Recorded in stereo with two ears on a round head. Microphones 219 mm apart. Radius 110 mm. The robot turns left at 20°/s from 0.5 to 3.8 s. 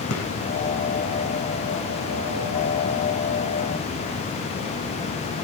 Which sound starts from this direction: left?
A gunshot, at 0.1 s.